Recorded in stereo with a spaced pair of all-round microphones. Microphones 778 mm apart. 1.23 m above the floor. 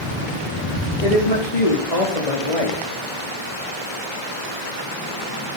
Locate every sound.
1.0 s a woman speaking: 70° left (ahead or behind), 3.5 m; by 2.8 s 45° left (ahead or behind), 3 m